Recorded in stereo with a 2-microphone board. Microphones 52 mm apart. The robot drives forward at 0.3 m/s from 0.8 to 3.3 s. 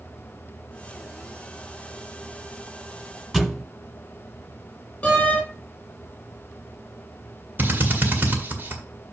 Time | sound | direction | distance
3.3 | a thud | 5° right (ahead or behind) | 1.4 m
5.0 | a door slam | 20° left (ahead or behind) | 3.5 m
7.6 | a drill | 40° right (ahead or behind) | 1.8 m